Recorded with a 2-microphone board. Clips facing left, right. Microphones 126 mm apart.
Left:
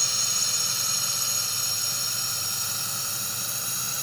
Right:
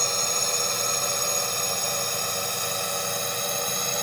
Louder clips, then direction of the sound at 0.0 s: Right 10 dB; 55° right (ahead or behind).